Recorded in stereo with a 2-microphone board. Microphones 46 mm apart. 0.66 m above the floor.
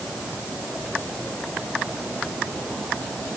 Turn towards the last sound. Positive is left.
No sound to turn to.